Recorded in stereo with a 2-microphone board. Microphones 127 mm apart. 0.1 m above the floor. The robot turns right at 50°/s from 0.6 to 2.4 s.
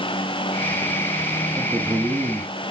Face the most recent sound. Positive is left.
turn(degrees=0)  # may be behind; listen again after turning